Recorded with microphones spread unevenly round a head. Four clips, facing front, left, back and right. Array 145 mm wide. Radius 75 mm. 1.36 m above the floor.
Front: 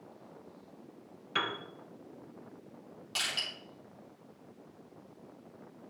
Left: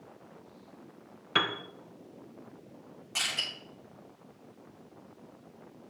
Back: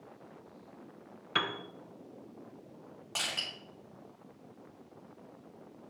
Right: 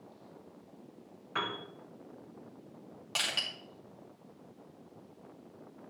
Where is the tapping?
I don't hear tapping.